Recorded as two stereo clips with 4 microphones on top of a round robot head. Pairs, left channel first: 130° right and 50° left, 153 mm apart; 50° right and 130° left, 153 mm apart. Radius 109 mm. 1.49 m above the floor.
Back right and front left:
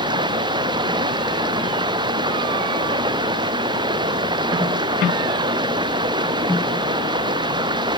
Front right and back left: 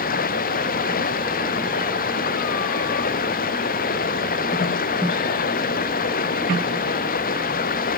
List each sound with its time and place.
0.0 s running water: 15° right